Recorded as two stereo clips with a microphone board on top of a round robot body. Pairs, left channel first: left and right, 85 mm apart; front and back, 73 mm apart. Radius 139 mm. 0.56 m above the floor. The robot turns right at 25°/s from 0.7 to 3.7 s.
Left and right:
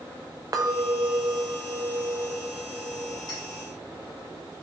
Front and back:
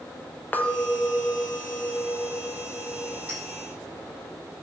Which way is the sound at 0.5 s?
65° right.